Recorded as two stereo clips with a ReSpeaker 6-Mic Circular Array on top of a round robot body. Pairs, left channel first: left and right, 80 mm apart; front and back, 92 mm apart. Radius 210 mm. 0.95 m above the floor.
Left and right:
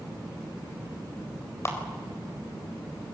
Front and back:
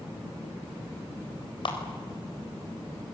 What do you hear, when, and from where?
1.6 s a clap: 35° left, 4 m